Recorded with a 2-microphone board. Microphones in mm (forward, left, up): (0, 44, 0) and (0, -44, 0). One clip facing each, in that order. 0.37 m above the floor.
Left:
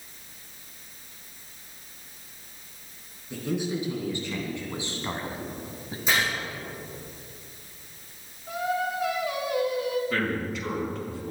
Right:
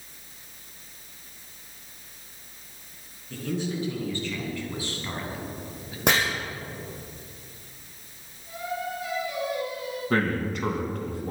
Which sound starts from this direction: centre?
A man speaking, at 3.3 s.